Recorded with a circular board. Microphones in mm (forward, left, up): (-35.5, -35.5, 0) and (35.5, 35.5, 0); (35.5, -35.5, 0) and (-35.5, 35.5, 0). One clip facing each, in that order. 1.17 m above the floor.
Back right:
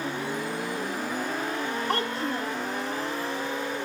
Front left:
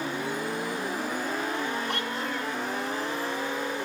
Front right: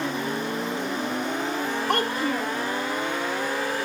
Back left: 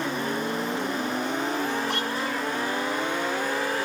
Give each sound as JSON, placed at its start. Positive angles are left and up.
{"t": 1.9, "sound": "a child speaking", "azimuth_deg": -85, "distance_m": 1.6}